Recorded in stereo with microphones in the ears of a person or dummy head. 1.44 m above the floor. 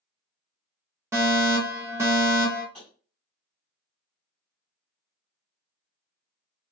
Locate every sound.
1.1 s a fire alarm: 10° right (ahead or behind), 0.7 m
2.7 s tapping: centre (ahead or behind), 1.8 m